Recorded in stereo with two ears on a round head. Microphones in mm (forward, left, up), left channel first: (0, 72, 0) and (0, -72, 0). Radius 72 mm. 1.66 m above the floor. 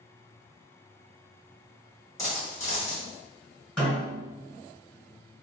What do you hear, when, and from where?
2.2 s a dropped coin: 25° left (ahead or behind), 1.8 m
3.8 s a snare drum: centre (ahead or behind), 1.8 m